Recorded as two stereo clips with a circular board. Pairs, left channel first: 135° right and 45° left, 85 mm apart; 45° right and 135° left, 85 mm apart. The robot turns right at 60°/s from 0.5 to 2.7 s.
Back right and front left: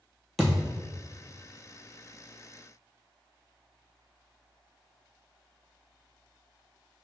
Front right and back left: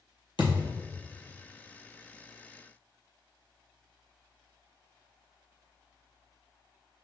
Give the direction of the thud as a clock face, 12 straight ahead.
1 o'clock.